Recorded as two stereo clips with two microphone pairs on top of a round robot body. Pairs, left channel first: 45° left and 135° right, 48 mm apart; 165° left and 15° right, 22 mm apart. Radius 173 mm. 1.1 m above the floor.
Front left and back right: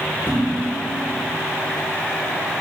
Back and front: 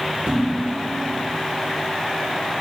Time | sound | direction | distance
0.3 | dishes clattering | 10° right | 2 m